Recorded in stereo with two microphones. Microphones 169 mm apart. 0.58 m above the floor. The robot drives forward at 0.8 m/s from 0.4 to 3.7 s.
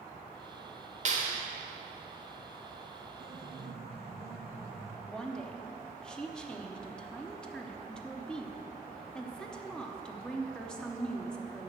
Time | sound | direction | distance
1.1 | a clap | 50° right (ahead or behind) | 1.3 m
3.2 | a piano | 70° right (ahead or behind) | 1.4 m
5.1 | a woman speaking | 5° left (ahead or behind) | 0.8 m